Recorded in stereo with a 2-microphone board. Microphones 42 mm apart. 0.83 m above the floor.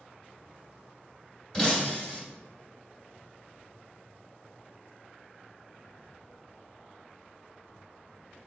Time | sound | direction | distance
1.5 | breaking glass | 20° left (ahead or behind) | 1.4 m